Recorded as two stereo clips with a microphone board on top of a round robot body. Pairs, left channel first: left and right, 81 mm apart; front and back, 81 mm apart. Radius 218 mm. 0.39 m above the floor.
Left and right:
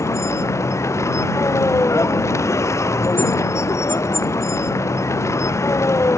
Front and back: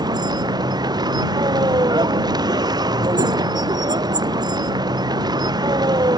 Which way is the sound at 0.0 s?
145° left.